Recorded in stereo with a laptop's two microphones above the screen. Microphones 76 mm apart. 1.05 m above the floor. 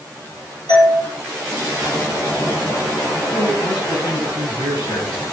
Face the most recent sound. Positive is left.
turn(degrees=85)